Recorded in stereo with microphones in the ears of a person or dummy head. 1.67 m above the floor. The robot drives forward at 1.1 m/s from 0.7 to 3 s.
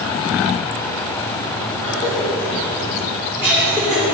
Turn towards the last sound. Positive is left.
turn(degrees=30)  # may be behind; listen again after turning